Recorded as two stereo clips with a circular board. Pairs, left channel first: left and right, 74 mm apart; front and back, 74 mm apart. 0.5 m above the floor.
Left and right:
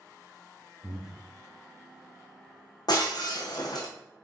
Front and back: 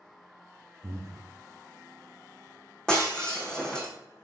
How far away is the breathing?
About 0.8 m.